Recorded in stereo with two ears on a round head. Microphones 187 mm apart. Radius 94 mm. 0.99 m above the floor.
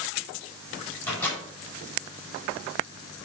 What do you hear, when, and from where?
1.1 s a microwave: 15° left (ahead or behind), 5 m